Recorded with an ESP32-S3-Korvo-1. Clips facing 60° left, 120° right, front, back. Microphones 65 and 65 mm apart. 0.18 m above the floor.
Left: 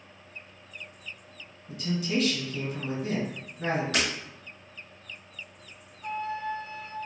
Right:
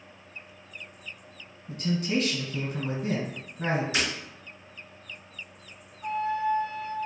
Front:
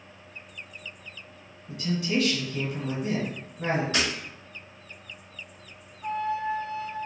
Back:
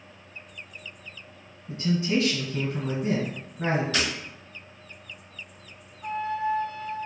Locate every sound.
1.7 s a man speaking: 130° right, 1.4 m
3.9 s breaking glass: 65° left, 1.6 m
6.0 s a flute: 80° right, 0.8 m